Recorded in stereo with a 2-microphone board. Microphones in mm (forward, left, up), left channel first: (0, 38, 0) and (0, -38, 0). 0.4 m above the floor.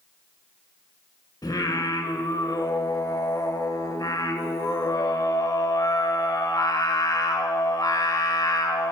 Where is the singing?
60° left (ahead or behind), 0.9 m.